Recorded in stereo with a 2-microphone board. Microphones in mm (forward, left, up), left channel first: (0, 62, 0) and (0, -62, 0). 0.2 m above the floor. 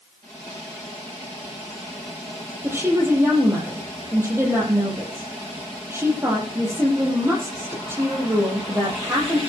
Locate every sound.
2.6 s a woman speaking: 20° right (ahead or behind), 7 m